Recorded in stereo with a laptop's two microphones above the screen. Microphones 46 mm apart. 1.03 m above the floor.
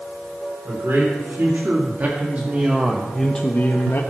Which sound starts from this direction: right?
A man speaking, at 0.7 s.